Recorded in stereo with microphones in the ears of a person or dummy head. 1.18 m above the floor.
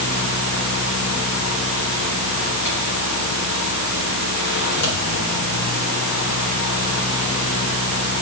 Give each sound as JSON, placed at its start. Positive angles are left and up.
{"t": 0.0, "sound": "a fan", "side_deg": 65, "distance_m": 3.0}